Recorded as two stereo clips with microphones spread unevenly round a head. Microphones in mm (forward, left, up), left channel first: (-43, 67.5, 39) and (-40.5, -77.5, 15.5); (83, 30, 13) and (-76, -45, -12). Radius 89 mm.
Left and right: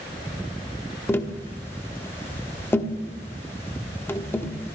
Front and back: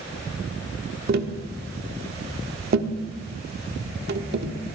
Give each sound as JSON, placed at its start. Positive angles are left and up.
{"t": 1.1, "sound": "tapping", "azimuth_deg": 165, "distance_m": 1.2}